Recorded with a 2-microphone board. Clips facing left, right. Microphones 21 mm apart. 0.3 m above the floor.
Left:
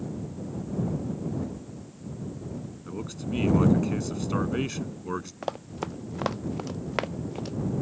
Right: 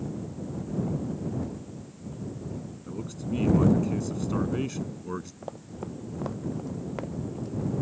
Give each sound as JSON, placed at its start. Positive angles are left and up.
{"t": 2.9, "sound": "a man speaking", "side_deg": 30}
{"t": 5.4, "sound": "running footsteps", "side_deg": 75}